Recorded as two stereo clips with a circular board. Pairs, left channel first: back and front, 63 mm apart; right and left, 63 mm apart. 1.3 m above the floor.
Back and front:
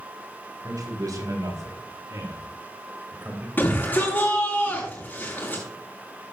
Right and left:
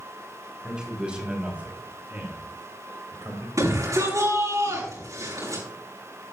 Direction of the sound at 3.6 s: 120° left.